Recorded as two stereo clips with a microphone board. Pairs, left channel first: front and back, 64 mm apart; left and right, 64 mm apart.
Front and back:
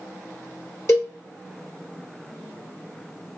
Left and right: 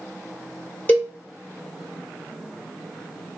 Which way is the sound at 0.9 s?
35° left.